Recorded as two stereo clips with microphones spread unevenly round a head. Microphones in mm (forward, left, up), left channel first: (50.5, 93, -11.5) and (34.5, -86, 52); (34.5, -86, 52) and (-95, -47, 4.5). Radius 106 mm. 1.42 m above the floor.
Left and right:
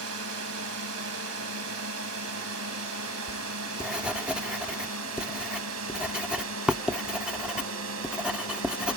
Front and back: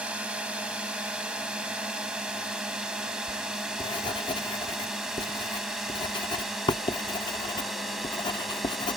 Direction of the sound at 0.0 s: 115° right.